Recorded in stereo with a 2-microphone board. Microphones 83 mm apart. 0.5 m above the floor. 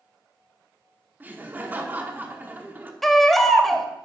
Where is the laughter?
20° right (ahead or behind), 0.8 m.